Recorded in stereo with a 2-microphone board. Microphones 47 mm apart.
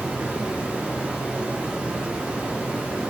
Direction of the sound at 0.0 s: 25° right (ahead or behind).